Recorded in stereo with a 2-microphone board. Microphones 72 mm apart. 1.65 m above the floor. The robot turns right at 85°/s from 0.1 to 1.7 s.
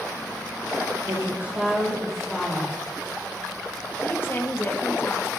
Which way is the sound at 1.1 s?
55° right.